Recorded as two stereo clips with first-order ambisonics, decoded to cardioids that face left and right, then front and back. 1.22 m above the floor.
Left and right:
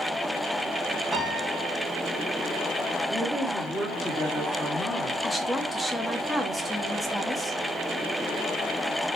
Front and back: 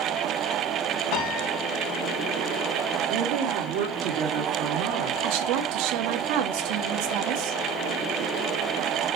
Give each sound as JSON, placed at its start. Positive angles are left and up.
{"t": 1.1, "sound": "a piano", "azimuth_deg": -5, "distance_m": 2.5}
{"t": 3.1, "sound": "a woman speaking", "azimuth_deg": 175, "distance_m": 2.5}
{"t": 5.2, "sound": "a woman speaking", "azimuth_deg": 175, "distance_m": 1.5}